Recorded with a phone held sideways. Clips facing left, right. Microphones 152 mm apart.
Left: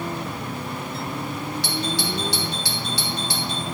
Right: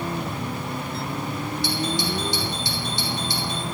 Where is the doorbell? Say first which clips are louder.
Right 3 dB; 80° left, 4.5 m.